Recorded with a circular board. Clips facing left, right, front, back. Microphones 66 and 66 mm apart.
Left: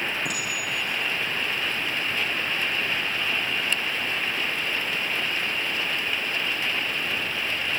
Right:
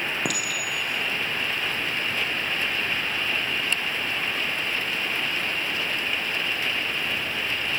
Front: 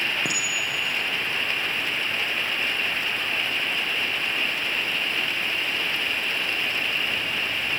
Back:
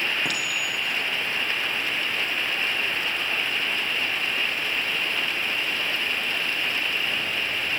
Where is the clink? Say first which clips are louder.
Right 1 dB, even; 70° right, 2.5 m.